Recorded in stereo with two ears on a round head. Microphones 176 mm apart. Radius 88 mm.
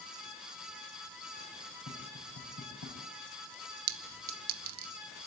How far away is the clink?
About 0.8 m.